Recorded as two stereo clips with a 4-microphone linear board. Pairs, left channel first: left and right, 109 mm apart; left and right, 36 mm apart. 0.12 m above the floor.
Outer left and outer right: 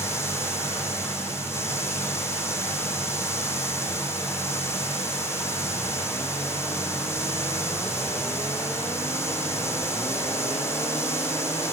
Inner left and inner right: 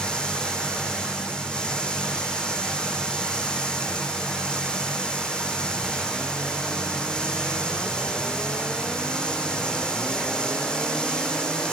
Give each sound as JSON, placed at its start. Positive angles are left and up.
{"t": 0.0, "sound": "running water", "side_deg": 25, "distance_m": 3.5}